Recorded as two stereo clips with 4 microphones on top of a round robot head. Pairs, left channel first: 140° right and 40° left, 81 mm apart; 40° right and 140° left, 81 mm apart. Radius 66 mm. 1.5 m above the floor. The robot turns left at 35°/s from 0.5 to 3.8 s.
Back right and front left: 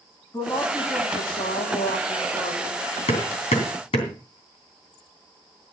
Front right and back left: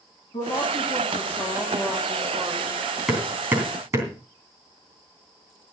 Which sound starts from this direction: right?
A woman speaking, at 0.3 s.